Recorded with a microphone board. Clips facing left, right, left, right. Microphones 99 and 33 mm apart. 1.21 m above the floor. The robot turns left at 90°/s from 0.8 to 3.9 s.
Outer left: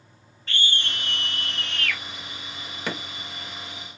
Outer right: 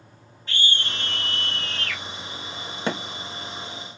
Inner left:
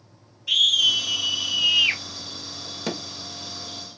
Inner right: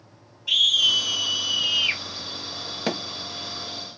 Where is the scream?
165° right, 1.9 m; by 2.0 s 85° left, 1.9 m.